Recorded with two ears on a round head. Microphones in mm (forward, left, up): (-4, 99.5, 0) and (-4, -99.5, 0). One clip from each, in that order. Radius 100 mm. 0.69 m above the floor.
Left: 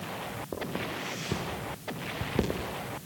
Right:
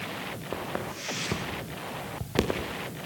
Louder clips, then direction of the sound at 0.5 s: Right 1 dB; 55° right (ahead or behind).